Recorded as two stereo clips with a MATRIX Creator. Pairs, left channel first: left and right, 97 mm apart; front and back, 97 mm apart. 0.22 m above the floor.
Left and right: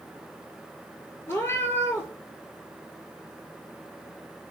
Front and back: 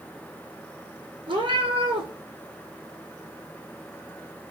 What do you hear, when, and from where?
1.3 s a cat meowing: 155° left, 0.7 m